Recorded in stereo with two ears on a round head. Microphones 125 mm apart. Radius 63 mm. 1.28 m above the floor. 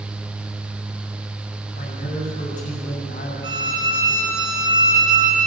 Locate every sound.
1.7 s a man speaking: 65° left (ahead or behind), 7.5 m
3.4 s a violin: 30° right (ahead or behind), 5.5 m